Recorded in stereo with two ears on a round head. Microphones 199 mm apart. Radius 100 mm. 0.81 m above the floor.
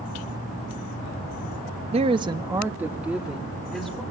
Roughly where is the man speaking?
Right.